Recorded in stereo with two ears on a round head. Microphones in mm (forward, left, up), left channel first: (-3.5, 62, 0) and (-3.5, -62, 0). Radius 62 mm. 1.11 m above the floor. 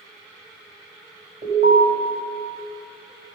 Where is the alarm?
55° right (ahead or behind), 5 m.